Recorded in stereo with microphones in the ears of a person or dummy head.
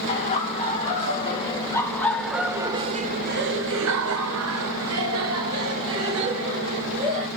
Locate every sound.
0.1 s laughter: 40° left (ahead or behind), 1.8 m; by 7.3 s 70° right (ahead or behind), 3 m